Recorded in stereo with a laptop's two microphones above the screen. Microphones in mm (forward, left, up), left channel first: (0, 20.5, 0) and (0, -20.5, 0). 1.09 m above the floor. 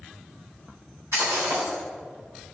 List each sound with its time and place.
1.1 s breaking glass: 85° right, 3 m